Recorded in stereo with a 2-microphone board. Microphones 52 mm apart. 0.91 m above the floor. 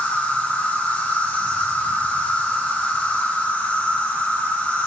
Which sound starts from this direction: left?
An insect, at 0.0 s.